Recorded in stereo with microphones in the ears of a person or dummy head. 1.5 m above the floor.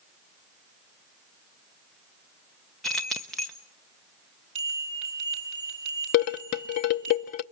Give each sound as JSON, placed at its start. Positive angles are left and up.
{"t": 2.8, "sound": "keys jangling", "side_deg": 0, "distance_m": 0.6}
{"t": 4.5, "sound": "a bell", "side_deg": -30, "distance_m": 4.0}
{"t": 6.1, "sound": "dishes clattering", "side_deg": 40, "distance_m": 0.6}